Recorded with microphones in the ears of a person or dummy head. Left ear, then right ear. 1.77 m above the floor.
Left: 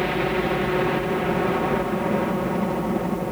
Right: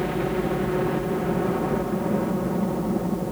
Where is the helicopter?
55° left (ahead or behind).